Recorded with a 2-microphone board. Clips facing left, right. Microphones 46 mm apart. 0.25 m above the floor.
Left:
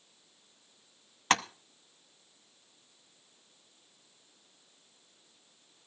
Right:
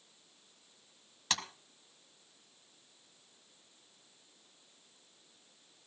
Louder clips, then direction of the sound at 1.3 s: Left 10 dB; 40° left (ahead or behind).